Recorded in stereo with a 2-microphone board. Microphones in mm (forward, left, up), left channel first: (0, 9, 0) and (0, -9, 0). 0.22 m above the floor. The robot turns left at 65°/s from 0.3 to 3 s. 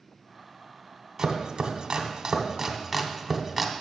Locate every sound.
1.2 s chopping: 35° right (ahead or behind), 0.8 m; by 3.7 s 10° right (ahead or behind), 0.8 m